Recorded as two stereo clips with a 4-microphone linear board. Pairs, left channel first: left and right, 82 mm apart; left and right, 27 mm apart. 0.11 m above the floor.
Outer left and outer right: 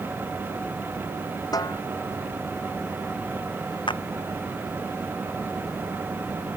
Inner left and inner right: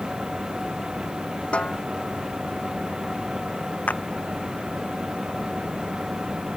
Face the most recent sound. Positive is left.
turn(degrees=75)  # may be behind; listen again after turning